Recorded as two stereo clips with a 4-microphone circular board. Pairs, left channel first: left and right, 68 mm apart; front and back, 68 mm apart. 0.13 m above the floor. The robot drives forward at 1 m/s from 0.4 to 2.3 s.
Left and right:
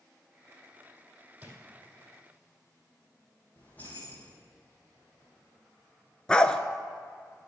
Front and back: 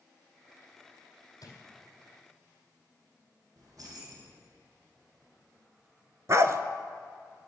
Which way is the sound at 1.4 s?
25° right.